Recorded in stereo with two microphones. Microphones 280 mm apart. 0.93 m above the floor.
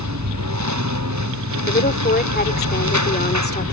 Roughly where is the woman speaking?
Left.